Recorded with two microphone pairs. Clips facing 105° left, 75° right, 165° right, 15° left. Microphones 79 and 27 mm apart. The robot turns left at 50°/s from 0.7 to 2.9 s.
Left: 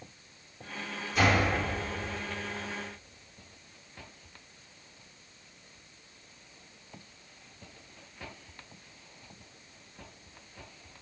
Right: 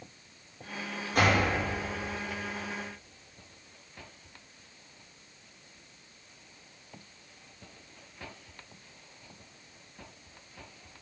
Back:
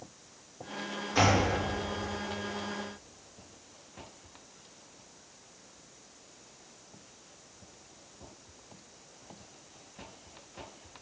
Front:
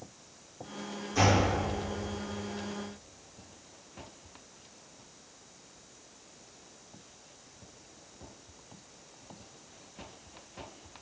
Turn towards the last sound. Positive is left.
turn(degrees=160)